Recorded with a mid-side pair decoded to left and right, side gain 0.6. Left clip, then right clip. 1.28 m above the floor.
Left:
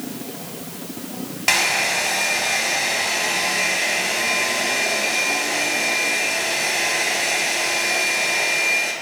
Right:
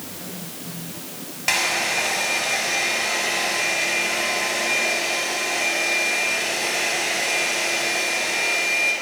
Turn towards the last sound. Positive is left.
turn(degrees=20)